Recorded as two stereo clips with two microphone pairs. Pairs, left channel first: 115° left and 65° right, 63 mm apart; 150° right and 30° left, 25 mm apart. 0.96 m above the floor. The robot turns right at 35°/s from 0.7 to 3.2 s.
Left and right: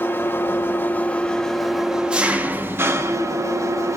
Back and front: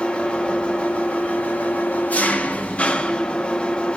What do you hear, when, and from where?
0.0 s an engine running: 170° left, 1.1 m; by 4.0 s 105° right, 1.1 m